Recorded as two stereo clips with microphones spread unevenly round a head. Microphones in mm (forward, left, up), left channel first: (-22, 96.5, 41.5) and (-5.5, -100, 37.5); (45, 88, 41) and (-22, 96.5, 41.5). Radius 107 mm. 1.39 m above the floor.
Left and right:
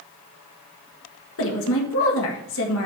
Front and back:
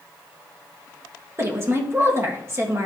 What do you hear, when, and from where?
1.4 s a woman speaking: 120° left, 1.5 m